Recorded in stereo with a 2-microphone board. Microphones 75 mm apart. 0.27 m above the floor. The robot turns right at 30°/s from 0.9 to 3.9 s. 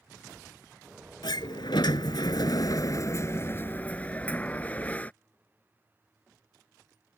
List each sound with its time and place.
1.2 s a sliding door: 80° left; by 5.1 s 160° left